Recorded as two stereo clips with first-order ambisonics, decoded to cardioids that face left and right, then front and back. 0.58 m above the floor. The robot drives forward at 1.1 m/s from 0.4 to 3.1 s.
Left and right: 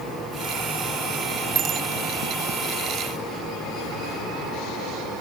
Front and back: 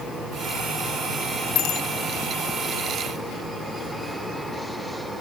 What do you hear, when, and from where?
1.6 s a bicycle bell: 30° right; by 1.9 s 35° right